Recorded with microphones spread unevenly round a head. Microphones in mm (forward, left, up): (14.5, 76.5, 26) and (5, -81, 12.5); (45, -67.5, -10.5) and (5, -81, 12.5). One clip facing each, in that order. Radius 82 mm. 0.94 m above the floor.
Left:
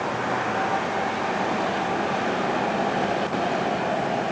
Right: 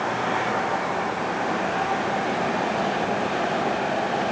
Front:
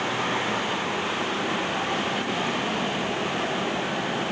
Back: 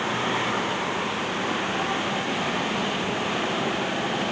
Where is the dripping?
I don't hear dripping.